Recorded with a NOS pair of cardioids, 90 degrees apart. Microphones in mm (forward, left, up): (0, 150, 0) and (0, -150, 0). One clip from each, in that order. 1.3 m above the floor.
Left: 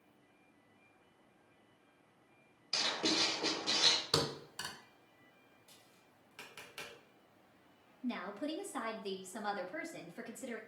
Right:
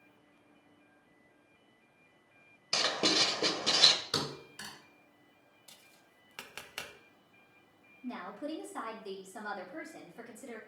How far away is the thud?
About 2.5 m.